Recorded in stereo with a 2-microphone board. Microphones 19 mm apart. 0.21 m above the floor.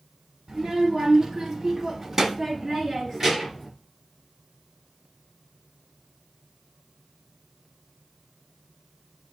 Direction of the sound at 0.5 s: 20° right (ahead or behind).